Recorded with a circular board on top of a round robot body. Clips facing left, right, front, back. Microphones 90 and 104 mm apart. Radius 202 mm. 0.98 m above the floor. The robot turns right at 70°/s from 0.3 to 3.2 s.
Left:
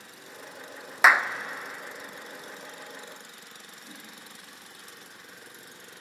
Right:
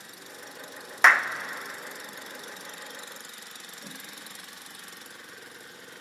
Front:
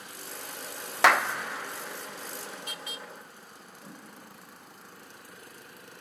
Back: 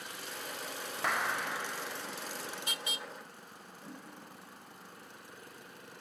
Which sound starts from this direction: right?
A whoosh, at 3.8 s.